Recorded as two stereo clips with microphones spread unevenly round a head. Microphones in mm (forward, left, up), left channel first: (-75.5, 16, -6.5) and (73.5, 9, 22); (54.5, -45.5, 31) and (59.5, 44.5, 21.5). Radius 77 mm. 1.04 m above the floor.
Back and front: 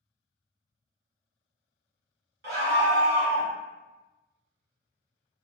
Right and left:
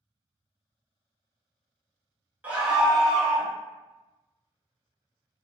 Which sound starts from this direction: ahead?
A scream, at 2.4 s.